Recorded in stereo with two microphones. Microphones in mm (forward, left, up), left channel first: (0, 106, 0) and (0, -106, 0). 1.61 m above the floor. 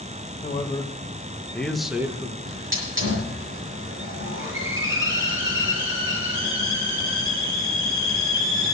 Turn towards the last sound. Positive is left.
turn(degrees=-60)  # may be behind; listen again after turning